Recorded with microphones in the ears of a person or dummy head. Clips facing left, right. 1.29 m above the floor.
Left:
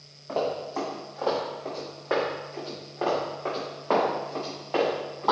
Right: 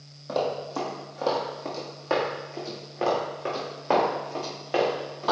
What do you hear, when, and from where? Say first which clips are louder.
0.3 s running footsteps: right 1 dB; 35° right (ahead or behind), 2.5 m; by 5.3 s 30° right (ahead or behind), 5 m